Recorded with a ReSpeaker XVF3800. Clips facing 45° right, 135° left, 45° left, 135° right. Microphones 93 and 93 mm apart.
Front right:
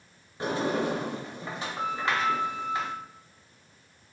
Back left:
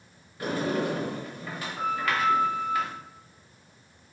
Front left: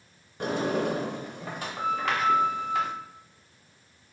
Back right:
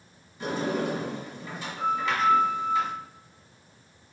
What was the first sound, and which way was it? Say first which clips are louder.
A sliding door: even, front left 1 dB; 20° left.